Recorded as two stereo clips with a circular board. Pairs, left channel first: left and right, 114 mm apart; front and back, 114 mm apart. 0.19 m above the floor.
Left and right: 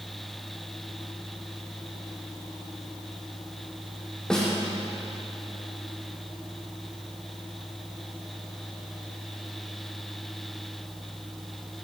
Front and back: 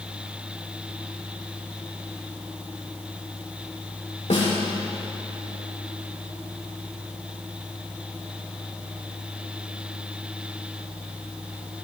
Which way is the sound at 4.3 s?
5° left.